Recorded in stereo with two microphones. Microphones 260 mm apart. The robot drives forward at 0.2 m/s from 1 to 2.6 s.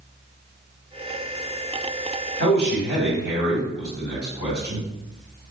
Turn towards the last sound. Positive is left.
turn(degrees=-40)  # may be behind; listen again after turning